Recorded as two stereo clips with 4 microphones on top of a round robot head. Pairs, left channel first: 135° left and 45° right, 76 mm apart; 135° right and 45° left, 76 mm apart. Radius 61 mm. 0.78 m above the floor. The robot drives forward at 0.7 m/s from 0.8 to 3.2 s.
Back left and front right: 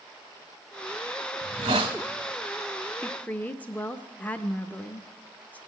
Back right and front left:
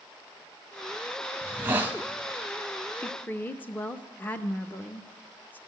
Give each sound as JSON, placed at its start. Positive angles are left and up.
{"t": 1.4, "sound": "a hiss", "azimuth_deg": -20, "distance_m": 1.1}
{"t": 3.0, "sound": "a woman speaking", "azimuth_deg": -170, "distance_m": 0.6}